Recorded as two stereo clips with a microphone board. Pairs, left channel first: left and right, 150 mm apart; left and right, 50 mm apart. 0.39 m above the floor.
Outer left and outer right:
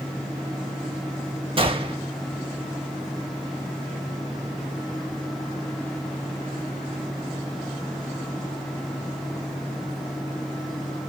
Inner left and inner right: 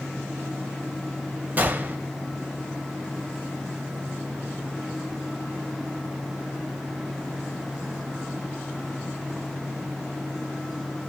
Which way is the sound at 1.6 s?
35° right (ahead or behind).